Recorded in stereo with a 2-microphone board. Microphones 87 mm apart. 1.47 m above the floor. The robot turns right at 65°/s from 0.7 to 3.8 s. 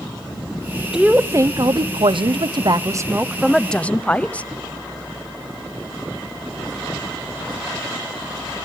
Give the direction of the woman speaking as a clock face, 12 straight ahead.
6 o'clock.